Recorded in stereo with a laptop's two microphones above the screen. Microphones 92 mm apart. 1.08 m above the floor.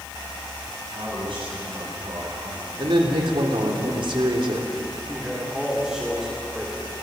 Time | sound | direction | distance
0.9 | a man speaking | 70° right (ahead or behind) | 9.5 m
2.8 | a man speaking | 65° right (ahead or behind) | 3.5 m
5.1 | a man speaking | 5° right (ahead or behind) | 3 m